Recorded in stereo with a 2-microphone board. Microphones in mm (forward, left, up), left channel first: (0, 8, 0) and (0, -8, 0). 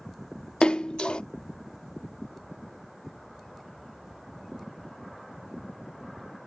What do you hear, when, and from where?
0.6 s a splash: 70° left (ahead or behind)